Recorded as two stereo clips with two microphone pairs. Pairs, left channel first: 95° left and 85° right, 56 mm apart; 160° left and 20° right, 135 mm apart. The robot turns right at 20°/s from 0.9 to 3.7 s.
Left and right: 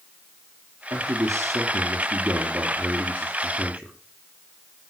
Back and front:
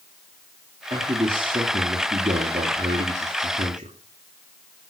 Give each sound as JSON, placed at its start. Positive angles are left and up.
{"t": 0.9, "sound": "a man speaking", "azimuth_deg": -70, "distance_m": 3.0}